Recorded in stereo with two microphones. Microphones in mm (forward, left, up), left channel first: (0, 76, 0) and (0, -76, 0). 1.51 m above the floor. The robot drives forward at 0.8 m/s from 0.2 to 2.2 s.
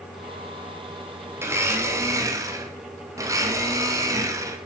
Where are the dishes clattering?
I don't hear dishes clattering.